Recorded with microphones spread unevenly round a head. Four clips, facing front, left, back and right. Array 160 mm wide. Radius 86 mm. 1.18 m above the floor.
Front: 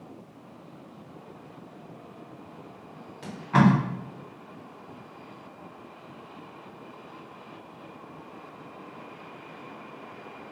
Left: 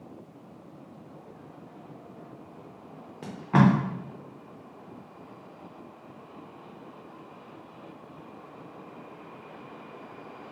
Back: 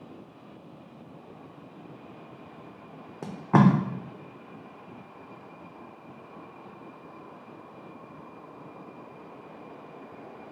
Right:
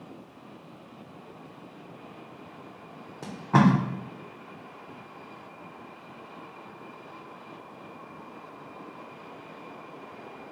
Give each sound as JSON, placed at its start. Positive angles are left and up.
{"t": 3.2, "sound": "tape being pulled", "azimuth_deg": -175, "distance_m": 0.6}